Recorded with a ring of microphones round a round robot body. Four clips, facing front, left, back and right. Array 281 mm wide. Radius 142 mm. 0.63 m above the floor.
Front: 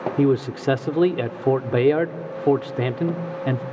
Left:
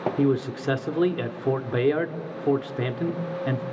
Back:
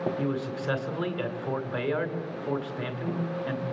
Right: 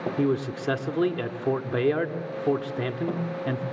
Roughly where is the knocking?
I don't hear knocking.